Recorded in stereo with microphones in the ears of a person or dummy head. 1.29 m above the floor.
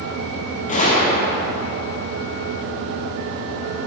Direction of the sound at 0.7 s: 40° left (ahead or behind).